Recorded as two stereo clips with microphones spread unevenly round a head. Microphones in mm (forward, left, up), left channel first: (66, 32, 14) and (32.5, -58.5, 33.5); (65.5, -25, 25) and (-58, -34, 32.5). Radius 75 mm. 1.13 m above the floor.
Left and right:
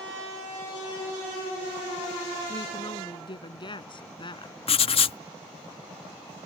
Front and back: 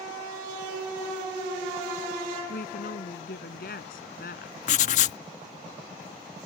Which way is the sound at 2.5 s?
30° left.